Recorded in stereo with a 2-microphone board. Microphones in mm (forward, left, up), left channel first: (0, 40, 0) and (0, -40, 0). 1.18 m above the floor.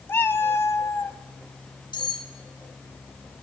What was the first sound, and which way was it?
A cat meowing, 30° left (ahead or behind).